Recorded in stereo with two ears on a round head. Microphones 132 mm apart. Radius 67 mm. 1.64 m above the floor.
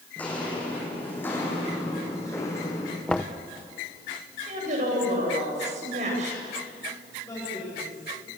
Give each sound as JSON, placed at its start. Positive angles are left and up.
{"t": 0.2, "sound": "footsteps", "side_deg": 10, "distance_m": 5.5}
{"t": 3.1, "sound": "knocking", "side_deg": 5, "distance_m": 1.0}
{"t": 4.5, "sound": "a woman speaking", "side_deg": -50, "distance_m": 8.5}
{"t": 7.2, "sound": "a man speaking", "side_deg": 20, "distance_m": 8.5}